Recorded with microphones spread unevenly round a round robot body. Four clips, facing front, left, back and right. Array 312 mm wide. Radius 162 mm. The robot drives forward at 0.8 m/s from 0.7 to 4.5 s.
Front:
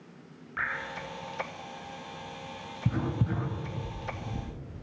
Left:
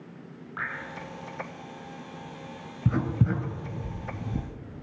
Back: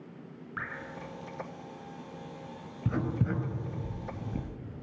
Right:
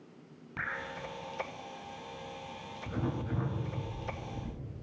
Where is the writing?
95° left, 4 m; by 4.5 s 110° left, 4.5 m.